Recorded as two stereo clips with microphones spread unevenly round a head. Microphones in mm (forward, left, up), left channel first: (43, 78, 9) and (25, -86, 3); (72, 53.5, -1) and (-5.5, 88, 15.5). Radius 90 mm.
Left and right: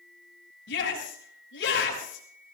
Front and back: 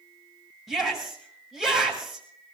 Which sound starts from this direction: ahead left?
A shout, at 0.7 s.